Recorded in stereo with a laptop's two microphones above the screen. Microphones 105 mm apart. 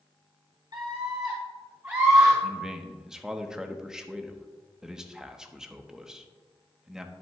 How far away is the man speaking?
About 0.9 m.